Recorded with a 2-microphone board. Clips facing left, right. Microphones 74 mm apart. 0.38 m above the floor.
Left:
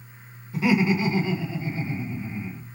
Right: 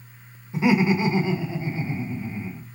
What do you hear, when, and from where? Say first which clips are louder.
0.5 s laughter: right 2 dB; 25° right (ahead or behind), 0.9 m